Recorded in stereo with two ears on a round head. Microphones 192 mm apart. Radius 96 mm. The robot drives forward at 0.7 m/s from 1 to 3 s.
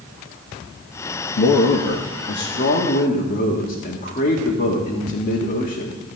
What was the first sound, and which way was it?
A man speaking, 75° left (ahead or behind).